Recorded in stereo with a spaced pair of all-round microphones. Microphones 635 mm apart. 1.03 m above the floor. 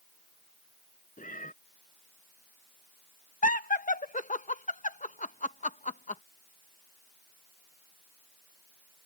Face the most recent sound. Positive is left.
turn(degrees=15)  # may be behind; listen again after turning